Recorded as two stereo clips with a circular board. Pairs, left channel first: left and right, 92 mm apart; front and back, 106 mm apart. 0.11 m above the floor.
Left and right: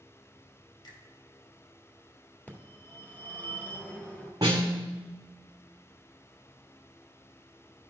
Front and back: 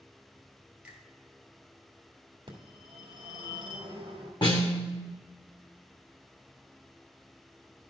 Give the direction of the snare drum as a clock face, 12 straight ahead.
1 o'clock.